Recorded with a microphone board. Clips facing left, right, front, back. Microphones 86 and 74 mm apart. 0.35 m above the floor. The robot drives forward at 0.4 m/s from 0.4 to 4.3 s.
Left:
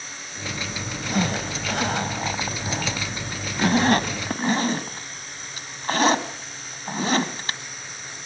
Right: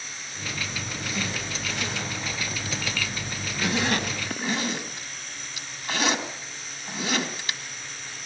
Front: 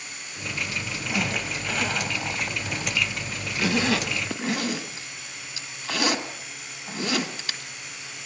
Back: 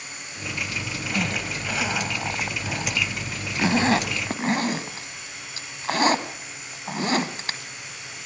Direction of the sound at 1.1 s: 85° left.